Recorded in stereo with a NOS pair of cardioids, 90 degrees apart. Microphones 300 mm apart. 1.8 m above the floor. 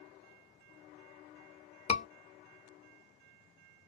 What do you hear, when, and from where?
1.9 s a scream: 20° left, 1.1 m